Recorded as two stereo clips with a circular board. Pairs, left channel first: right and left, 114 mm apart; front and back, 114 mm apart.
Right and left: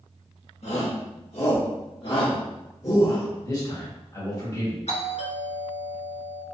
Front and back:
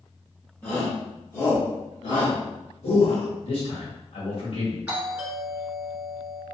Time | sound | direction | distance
0.6 | a shout | 80° right | 1.3 m
3.4 | a man speaking | 30° right | 1.6 m
4.9 | a doorbell | 100° right | 1.5 m